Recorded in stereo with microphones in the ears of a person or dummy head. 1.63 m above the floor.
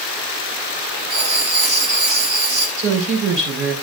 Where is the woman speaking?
60° right (ahead or behind), 5 m.